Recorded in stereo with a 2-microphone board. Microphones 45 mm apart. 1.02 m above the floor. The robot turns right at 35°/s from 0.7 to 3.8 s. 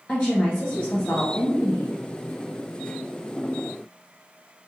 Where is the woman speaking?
30° left, 0.6 m; by 2.0 s 75° left, 0.6 m.